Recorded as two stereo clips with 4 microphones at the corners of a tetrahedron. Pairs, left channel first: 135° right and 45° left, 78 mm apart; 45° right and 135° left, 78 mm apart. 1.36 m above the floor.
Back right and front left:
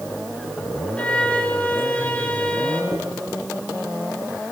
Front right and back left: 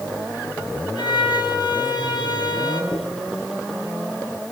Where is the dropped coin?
10° right, 7.5 m.